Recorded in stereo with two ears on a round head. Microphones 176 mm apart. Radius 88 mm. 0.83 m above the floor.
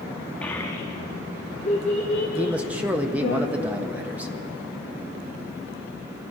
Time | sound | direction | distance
0.4 | a child speaking | 10° left (ahead or behind) | 0.7 m
2.4 | a man speaking | 10° right (ahead or behind) | 0.6 m